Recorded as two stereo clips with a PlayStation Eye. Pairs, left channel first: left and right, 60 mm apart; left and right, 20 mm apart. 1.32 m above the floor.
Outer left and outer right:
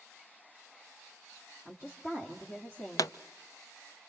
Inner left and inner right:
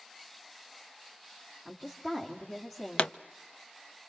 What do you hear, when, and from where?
1.6 s a woman speaking: 35° left (ahead or behind), 2.5 m
3.0 s a pop: 75° left (ahead or behind), 0.8 m